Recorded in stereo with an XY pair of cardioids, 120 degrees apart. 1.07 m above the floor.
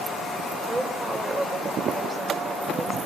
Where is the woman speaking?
25° right, 6 m.